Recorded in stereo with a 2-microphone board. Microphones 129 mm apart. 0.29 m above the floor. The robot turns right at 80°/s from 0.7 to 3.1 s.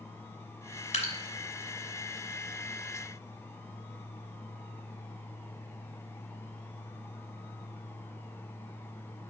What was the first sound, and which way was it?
Dripping, 65° left (ahead or behind).